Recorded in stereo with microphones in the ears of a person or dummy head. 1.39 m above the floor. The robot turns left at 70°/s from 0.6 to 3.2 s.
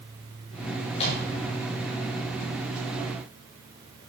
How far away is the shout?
No shout in this recording.